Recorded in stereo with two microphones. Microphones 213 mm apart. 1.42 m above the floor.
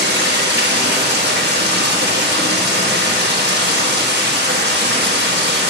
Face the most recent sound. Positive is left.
turn(degrees=-50)  # may be behind; listen again after turning